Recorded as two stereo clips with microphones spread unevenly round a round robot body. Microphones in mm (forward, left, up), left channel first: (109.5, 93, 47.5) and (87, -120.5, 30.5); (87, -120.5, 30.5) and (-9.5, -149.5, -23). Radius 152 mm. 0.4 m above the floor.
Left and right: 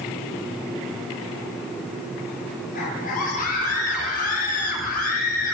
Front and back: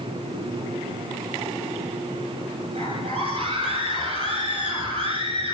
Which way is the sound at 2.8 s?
145° left.